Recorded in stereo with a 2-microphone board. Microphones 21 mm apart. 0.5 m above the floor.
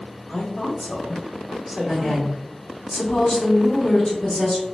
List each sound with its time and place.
0.3 s a woman speaking: 45° left (ahead or behind), 1.1 m; by 2.3 s 10° right (ahead or behind), 1.1 m
1.9 s a woman speaking: 25° left (ahead or behind), 1.2 m